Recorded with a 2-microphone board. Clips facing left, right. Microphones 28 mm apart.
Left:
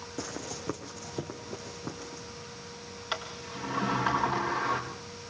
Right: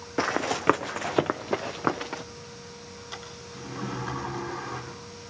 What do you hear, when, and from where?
0.2 s running footsteps: 55° right (ahead or behind), 0.6 m; by 2.2 s 75° right (ahead or behind), 1.4 m
3.1 s a sliding door: 85° left, 5.5 m